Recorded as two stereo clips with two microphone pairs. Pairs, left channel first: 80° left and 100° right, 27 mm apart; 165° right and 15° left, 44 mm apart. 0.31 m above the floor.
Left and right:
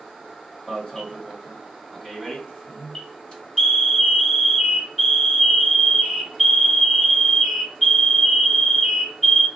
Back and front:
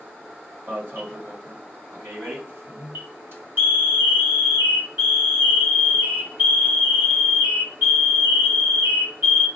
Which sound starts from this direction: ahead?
An alarm, at 0.7 s.